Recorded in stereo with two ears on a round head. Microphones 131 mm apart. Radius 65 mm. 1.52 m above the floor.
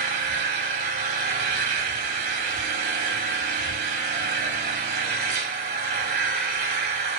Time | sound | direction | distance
0.0 | an engine running | 65° right (ahead or behind) | 4 m